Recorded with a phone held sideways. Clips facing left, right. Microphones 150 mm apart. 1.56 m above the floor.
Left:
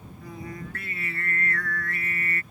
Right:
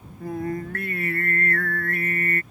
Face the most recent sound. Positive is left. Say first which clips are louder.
# right 10 dB
turn(degrees=-60)  # may be behind; listen again after turning